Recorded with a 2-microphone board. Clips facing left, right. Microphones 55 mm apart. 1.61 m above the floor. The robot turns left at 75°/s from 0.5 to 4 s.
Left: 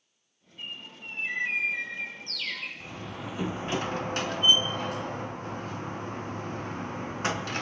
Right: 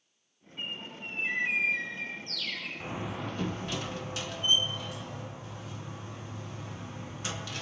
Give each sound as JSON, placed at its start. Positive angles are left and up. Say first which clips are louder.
{"t": 0.6, "sound": "a bird", "louder": "right 2 dB", "azimuth_deg": -100, "distance_m": 6.0}
{"t": 2.8, "sound": "a door slam", "louder": "right 2 dB", "azimuth_deg": -150, "distance_m": 0.8}